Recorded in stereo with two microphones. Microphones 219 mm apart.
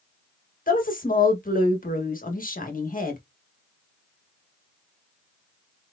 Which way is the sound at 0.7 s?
40° left (ahead or behind).